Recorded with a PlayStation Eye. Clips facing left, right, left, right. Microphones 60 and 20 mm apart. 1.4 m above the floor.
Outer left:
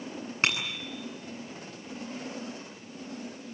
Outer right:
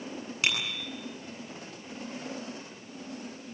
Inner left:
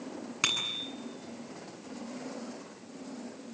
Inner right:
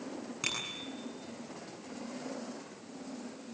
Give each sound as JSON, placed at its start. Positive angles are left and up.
{"t": 0.4, "sound": "a bicycle bell", "side_deg": 40, "distance_m": 9.5}